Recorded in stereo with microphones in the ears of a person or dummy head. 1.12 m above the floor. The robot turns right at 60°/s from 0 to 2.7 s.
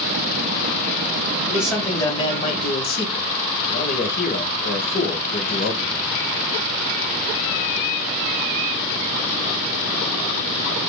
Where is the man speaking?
15° right, 0.9 m; by 6.1 s 60° left, 0.9 m.